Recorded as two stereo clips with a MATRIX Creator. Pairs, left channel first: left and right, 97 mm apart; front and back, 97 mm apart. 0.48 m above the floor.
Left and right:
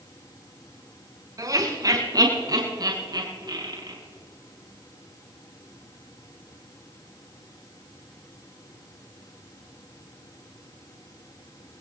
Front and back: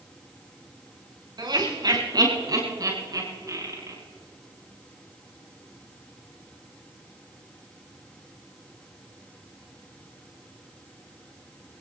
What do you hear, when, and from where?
1.4 s laughter: 140° right, 6 m; by 4.0 s 130° right, 8 m